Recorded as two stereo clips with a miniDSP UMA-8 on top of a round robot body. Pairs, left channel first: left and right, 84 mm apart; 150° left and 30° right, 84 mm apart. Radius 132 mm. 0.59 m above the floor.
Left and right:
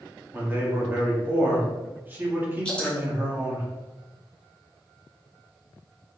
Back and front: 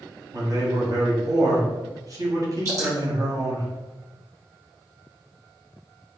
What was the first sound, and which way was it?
A man speaking, 35° right.